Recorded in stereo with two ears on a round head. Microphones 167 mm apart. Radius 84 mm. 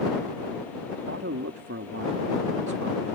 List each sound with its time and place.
1.1 s a man speaking: 70° right (ahead or behind)